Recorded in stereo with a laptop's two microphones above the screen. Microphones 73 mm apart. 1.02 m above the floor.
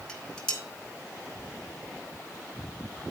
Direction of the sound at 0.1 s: 5° left (ahead or behind).